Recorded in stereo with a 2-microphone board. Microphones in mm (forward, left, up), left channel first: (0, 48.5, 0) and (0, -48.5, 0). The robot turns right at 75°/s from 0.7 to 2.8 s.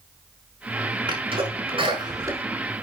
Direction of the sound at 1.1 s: 55° right (ahead or behind).